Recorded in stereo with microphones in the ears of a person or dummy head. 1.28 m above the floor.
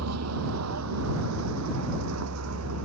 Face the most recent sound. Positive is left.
turn(degrees=-80)